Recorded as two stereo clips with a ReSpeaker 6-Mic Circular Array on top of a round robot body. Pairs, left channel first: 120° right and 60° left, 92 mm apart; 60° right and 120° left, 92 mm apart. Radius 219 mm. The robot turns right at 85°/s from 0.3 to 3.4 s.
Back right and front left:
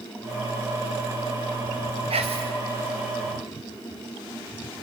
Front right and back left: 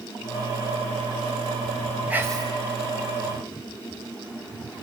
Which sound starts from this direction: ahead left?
Whispering, at 2.1 s.